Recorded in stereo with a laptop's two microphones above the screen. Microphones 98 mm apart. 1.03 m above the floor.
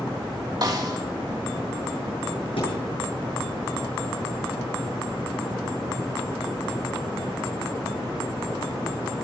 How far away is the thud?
About 8 m.